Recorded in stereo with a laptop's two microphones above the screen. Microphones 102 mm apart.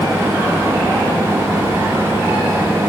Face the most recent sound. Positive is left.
turn(degrees=-30)  # may be behind; listen again after turning